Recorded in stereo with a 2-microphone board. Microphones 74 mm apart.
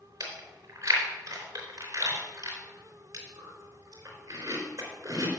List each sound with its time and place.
0.2 s chewing: 45° right (ahead or behind), 3.5 m